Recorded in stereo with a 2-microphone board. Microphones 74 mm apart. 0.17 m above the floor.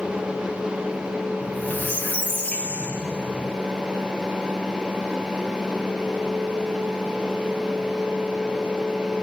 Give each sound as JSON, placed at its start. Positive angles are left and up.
{"t": 1.4, "sound": "a squeak", "side_deg": 25, "distance_m": 1.5}